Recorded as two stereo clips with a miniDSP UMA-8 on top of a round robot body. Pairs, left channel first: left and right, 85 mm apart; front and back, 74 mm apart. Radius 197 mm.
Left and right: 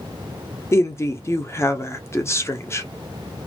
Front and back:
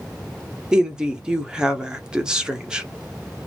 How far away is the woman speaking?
About 1.2 m.